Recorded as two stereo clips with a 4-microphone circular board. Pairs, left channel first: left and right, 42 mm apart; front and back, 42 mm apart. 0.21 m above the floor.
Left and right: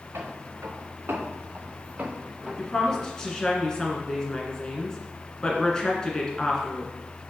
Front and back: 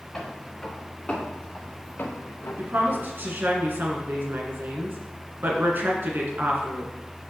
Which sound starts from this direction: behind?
A woman speaking, at 2.6 s.